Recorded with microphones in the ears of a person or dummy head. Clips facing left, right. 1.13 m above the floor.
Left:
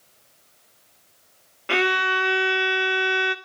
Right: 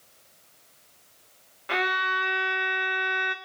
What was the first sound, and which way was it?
A violin, 40° left (ahead or behind).